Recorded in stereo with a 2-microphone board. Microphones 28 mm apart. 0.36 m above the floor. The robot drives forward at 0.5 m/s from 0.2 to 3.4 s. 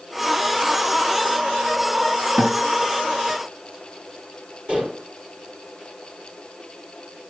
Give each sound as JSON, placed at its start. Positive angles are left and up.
{"t": 2.4, "sound": "a guitar", "side_deg": -40, "distance_m": 2.5}
{"t": 4.7, "sound": "dishes clattering", "side_deg": -40, "distance_m": 6.5}